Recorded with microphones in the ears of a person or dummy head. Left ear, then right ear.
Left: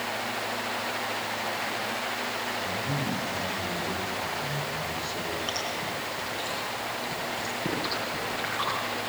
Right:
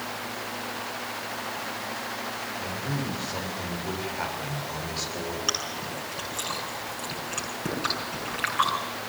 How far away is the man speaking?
About 7 m.